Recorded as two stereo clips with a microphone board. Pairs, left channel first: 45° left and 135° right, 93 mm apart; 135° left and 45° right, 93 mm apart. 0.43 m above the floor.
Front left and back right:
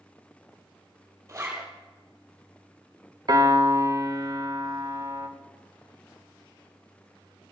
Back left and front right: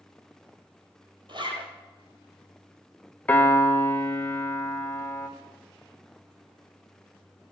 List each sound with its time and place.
1.3 s a zipper: 75° right, 3.5 m
3.3 s a piano: 155° right, 1.4 m